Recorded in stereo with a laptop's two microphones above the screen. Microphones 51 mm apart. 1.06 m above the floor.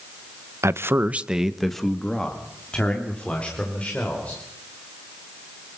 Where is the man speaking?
60° right (ahead or behind), 0.8 m; by 4.4 s 30° left (ahead or behind), 4.5 m.